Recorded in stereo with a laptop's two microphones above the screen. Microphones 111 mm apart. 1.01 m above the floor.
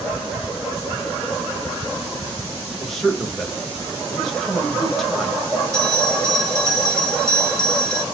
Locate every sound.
2.8 s a man speaking: centre (ahead or behind), 1.1 m
5.7 s a bell: 30° right (ahead or behind), 1.2 m